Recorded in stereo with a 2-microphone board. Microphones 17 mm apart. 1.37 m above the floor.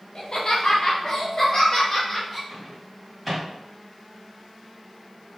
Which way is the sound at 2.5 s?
5° right (ahead or behind).